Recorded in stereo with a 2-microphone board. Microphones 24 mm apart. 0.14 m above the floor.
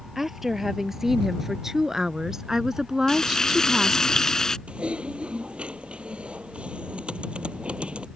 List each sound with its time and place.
0.1 s a woman speaking: 10° right (ahead or behind); by 4.1 s 25° right (ahead or behind)
3.1 s frying: 30° left (ahead or behind)
4.7 s typing on a keyboard: 60° right (ahead or behind)